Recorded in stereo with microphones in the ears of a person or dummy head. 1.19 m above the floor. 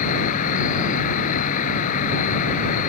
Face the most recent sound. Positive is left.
turn(degrees=50)  # may be behind; listen again after turning